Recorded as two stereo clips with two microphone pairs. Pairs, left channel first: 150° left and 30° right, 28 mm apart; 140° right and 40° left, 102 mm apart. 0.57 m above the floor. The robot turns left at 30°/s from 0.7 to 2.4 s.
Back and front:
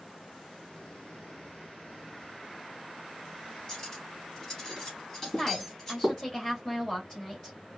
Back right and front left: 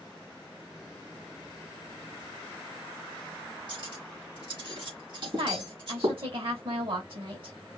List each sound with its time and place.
3.7 s cutlery clinking: 80° left, 3.5 m
5.2 s a woman speaking: 75° left, 3 m